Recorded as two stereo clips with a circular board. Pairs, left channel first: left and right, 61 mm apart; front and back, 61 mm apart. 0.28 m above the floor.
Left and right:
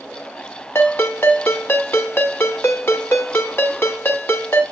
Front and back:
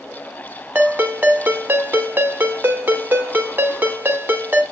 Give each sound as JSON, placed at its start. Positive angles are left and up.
{"t": 0.8, "sound": "a ringtone", "azimuth_deg": 130, "distance_m": 1.3}